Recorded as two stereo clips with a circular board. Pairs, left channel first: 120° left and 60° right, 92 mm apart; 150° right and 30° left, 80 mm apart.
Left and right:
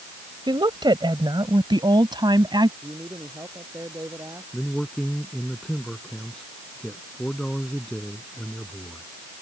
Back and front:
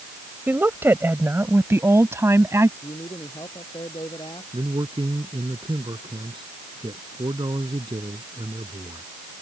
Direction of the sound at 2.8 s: 115° right.